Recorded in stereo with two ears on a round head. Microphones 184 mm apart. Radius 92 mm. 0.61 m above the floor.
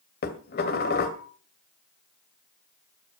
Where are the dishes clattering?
50° left (ahead or behind), 2 m.